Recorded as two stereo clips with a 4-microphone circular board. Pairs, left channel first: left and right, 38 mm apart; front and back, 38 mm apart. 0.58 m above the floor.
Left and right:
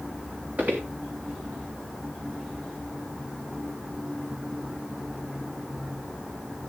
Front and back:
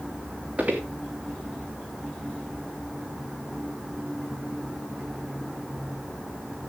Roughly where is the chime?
No chime in this recording.